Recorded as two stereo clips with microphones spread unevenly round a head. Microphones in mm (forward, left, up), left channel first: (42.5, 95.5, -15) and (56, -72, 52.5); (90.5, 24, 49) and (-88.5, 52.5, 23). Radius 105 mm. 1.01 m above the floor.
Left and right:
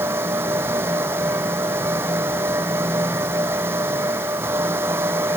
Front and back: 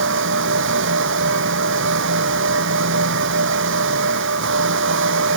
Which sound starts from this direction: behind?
A fan, at 0.0 s.